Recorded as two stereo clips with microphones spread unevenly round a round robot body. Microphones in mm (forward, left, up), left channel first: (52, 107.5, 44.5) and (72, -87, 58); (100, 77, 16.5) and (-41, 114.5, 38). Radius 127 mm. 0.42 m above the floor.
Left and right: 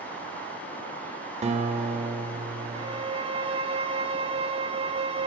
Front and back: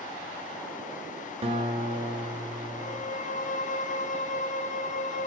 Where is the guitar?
140° right, 2 m.